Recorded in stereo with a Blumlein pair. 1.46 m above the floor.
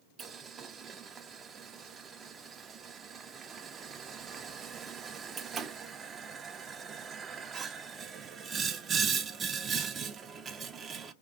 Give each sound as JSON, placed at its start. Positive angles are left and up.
{"t": 0.2, "sound": "boiling", "azimuth_deg": -20, "distance_m": 0.7}